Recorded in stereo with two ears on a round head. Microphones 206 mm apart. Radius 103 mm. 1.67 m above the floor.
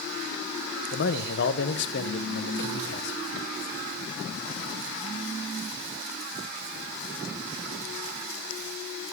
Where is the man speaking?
50° left (ahead or behind), 1.0 m.